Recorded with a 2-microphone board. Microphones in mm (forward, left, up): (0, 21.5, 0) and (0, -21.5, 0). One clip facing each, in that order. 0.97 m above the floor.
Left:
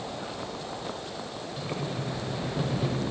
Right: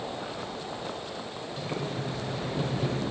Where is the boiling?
5° left (ahead or behind), 5 m.